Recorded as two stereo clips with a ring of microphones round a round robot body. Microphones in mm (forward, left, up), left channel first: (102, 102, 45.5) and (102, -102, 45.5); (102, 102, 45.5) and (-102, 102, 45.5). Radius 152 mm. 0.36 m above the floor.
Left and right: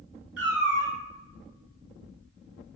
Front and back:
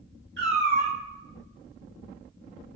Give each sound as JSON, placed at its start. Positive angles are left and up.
{"t": 0.4, "sound": "a cat meowing", "azimuth_deg": -125, "distance_m": 0.6}